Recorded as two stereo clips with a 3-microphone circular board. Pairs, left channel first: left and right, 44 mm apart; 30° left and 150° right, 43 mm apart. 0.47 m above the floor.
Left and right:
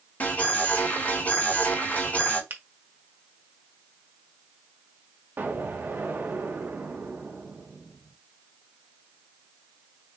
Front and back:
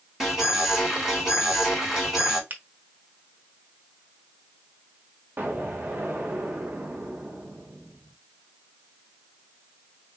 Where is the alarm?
135° left, 3 m.